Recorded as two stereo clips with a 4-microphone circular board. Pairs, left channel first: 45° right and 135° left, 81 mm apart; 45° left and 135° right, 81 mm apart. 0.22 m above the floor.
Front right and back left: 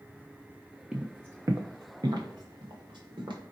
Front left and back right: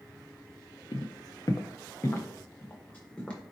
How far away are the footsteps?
About 0.7 m.